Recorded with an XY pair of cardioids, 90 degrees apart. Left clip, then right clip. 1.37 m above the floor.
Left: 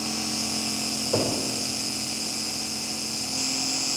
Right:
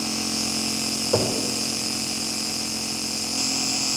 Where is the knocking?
45° right, 3.5 m.